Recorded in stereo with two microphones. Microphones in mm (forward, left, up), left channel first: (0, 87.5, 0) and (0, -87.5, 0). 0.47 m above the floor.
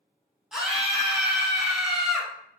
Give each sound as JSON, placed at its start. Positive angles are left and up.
{"t": 0.5, "sound": "a scream", "side_deg": -5, "distance_m": 0.8}